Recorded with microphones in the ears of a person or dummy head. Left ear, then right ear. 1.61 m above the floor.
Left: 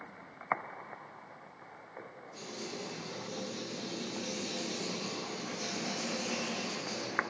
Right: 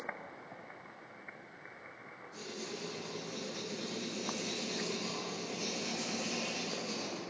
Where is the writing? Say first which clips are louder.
Left 1 dB; 5° left (ahead or behind), 0.5 m.